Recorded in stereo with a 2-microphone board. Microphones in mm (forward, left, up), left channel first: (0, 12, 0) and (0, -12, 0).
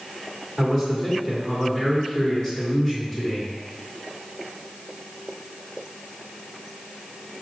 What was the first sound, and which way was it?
A man speaking, 20° left (ahead or behind).